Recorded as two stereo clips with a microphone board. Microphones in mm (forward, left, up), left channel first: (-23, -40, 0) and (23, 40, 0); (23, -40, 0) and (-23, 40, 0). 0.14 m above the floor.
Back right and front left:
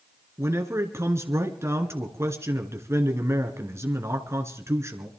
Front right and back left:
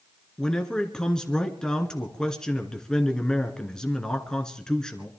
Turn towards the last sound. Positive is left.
turn(degrees=20)